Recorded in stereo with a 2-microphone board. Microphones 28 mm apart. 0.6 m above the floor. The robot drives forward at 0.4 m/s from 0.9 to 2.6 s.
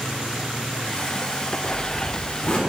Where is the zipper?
45° left (ahead or behind), 1.1 m; by 2.6 s 40° left (ahead or behind), 1.3 m.